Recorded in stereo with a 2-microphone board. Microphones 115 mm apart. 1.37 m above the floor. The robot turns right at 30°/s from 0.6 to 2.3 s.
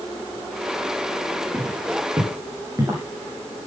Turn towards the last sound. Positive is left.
turn(degrees=-25)  # may be behind; listen again after turning